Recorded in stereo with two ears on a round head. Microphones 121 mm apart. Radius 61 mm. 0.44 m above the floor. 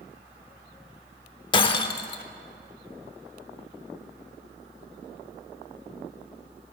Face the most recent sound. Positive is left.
turn(degrees=40)  # may be behind; listen again after turning